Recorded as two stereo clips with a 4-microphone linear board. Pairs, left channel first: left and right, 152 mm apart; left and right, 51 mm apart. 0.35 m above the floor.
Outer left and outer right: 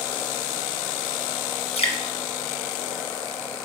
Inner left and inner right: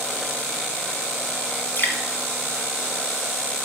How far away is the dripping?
About 1.7 m.